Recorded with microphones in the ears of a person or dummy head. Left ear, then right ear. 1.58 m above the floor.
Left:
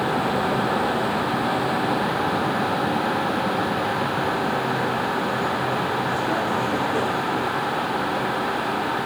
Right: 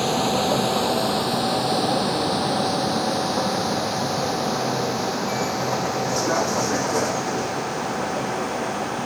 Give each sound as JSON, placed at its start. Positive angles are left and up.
{"t": 0.0, "sound": "a vehicle", "side_deg": -80}